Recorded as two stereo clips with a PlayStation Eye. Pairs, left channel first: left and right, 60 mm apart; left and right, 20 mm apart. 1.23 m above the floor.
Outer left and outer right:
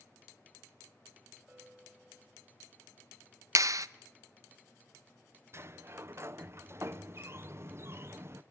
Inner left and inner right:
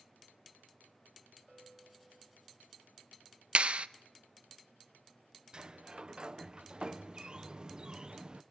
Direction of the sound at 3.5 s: 65° right (ahead or behind).